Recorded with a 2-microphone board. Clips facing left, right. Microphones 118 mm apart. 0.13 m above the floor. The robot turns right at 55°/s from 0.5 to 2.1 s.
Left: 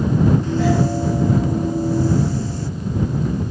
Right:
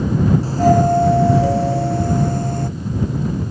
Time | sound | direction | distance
0.4 | a doorbell | 145° right | ?